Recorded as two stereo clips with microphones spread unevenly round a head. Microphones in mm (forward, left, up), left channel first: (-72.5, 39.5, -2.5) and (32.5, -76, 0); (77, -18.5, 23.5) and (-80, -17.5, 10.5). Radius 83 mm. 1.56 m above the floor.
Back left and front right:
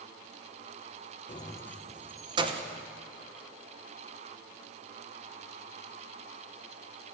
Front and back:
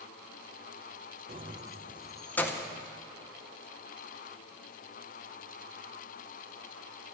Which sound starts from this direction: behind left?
Keys jangling, at 1.3 s.